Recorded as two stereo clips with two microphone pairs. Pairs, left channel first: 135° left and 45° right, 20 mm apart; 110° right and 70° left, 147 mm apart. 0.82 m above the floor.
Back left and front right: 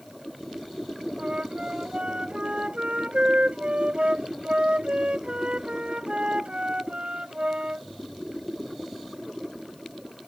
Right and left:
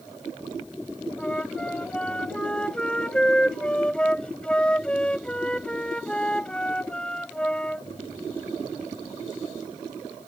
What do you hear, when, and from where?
1.2 s a flute: 25° right